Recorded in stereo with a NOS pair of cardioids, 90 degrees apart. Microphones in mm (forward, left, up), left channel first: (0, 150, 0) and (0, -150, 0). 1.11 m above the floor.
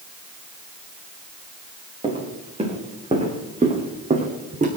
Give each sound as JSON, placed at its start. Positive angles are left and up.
{"t": 2.0, "sound": "footsteps", "azimuth_deg": -20, "distance_m": 7.0}